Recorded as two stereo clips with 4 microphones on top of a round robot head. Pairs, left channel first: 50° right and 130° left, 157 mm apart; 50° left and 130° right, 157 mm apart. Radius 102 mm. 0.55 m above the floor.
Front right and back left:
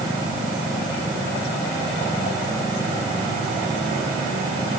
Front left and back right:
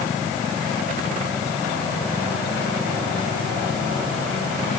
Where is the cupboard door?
I don't hear a cupboard door.